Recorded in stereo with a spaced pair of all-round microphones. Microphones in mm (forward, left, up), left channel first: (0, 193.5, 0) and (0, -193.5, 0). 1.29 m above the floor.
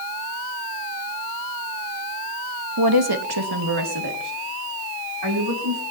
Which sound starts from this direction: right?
A woman speaking, at 2.8 s.